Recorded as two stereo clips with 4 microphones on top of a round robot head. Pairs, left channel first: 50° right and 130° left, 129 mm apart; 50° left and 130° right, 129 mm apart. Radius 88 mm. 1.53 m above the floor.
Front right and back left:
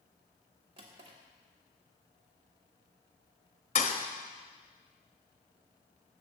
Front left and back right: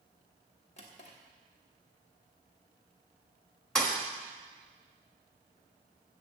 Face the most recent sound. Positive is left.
turn(degrees=-30)